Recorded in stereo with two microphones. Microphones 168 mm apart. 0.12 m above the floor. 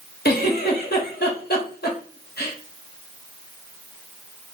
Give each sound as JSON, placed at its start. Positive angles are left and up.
{"t": 0.2, "sound": "a giggle", "side_deg": 75, "distance_m": 0.9}